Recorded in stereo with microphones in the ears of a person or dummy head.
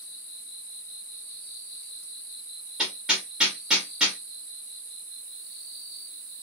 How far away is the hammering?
About 1.5 m.